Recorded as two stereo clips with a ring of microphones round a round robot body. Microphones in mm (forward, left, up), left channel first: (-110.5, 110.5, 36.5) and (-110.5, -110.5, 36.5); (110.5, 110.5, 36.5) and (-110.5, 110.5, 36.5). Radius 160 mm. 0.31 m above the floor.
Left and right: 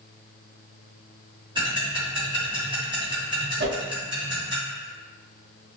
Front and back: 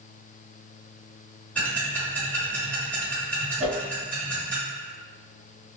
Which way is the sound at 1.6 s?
75° right.